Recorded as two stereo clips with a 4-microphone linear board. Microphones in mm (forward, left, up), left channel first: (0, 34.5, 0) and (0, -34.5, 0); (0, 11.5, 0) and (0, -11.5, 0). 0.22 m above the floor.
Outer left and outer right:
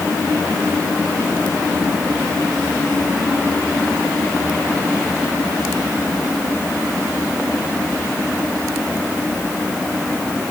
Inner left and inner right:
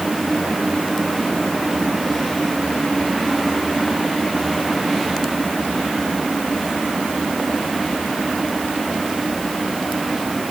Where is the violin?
I don't hear a violin.